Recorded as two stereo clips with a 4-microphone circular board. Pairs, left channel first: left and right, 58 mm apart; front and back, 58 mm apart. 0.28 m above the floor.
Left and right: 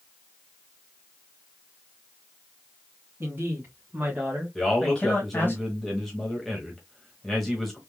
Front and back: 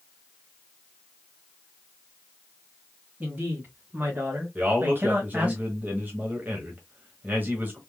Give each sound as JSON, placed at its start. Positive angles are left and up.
{"t": 3.2, "sound": "a woman speaking", "azimuth_deg": -125, "distance_m": 2.5}
{"t": 4.5, "sound": "a man speaking", "azimuth_deg": 175, "distance_m": 1.3}